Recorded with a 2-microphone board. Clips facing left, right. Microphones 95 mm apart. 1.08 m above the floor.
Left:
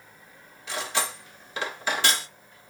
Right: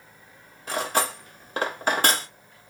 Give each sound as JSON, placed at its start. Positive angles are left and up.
{"t": 0.7, "sound": "cutlery clinking", "side_deg": -45, "distance_m": 0.6}